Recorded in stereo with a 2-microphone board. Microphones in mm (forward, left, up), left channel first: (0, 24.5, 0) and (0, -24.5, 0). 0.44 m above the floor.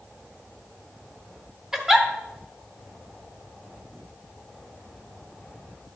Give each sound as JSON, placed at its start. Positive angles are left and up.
{"t": 1.7, "sound": "a giggle", "side_deg": -10, "distance_m": 0.9}